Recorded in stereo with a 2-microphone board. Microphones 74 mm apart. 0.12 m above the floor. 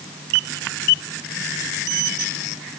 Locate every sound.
Only background noise.